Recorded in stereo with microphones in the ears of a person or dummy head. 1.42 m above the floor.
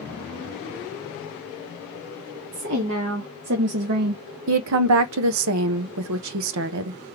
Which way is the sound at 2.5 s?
65° right (ahead or behind).